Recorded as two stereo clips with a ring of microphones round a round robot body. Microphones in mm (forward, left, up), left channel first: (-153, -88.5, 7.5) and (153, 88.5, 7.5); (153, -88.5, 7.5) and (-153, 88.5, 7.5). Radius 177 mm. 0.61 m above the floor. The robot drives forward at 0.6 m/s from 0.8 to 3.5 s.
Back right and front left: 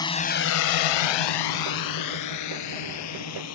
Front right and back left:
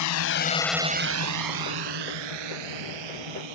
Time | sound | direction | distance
0.0 | a drone | 70° right | ?